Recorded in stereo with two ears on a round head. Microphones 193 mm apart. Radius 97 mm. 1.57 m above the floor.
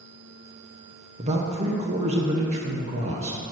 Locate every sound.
1.2 s a man speaking: 30° right (ahead or behind), 1.1 m